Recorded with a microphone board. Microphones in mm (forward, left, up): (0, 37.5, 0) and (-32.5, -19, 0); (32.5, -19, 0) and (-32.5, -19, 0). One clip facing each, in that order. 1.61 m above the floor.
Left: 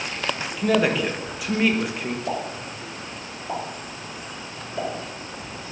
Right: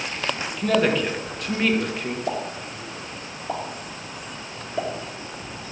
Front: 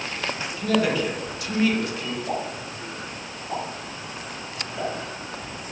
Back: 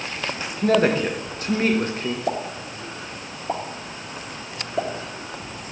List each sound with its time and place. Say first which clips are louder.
0.6 s a man speaking: even, back 4 dB; 140° left, 1.3 m
2.3 s a pop: even, back 2 dB; 165° left, 2 m